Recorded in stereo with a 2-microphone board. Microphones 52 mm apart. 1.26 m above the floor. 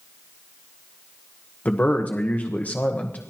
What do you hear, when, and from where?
1.6 s a man speaking: 30° left (ahead or behind), 1.2 m